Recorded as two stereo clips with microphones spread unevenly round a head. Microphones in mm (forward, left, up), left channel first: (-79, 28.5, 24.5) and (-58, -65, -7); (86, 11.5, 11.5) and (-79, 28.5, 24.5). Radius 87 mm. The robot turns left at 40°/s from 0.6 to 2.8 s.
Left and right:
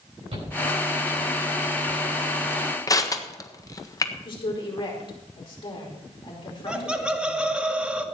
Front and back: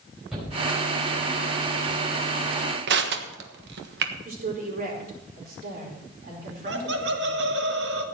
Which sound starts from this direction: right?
A shout, at 0.3 s.